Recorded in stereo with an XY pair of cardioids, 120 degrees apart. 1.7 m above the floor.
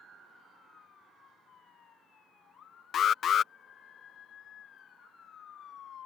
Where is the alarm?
45° left.